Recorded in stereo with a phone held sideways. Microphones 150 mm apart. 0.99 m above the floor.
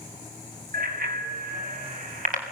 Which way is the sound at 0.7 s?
75° right (ahead or behind).